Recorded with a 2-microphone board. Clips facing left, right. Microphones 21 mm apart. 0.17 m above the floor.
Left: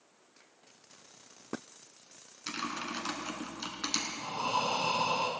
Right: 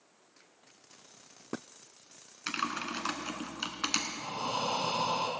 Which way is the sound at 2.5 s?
40° right (ahead or behind).